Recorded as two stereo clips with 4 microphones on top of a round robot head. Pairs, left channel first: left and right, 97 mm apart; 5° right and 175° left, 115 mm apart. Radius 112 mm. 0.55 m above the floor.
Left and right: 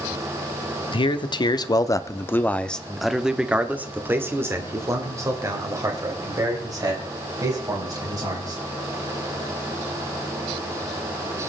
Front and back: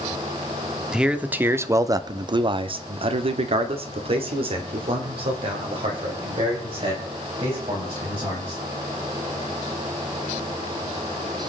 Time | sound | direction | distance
0.9 | a man speaking | 90° left | 1.3 m